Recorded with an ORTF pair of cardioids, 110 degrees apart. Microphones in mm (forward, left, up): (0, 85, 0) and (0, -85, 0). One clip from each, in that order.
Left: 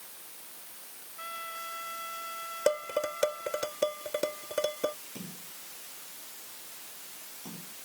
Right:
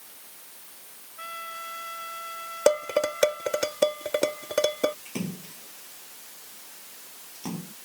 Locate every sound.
1.2 s a trumpet: 15° right
2.7 s dishes clattering: 40° right
5.0 s a splash: 65° right